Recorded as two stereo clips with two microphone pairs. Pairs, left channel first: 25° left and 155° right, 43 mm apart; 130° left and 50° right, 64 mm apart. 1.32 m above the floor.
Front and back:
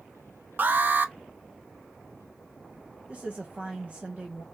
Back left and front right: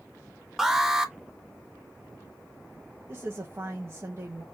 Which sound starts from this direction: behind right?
An alarm, at 0.6 s.